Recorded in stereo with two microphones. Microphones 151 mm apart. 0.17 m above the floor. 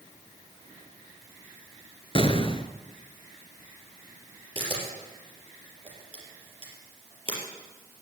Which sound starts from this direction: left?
An explosion, at 2.1 s.